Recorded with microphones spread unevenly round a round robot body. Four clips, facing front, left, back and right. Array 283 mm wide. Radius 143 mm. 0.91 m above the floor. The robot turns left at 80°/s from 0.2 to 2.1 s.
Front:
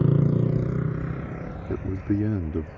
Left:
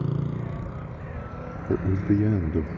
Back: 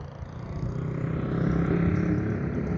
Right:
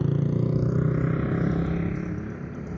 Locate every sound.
0.0 s a motorcycle: 15° right; by 2.8 s 175° right
1.7 s a man speaking: 95° left; by 2.7 s 65° left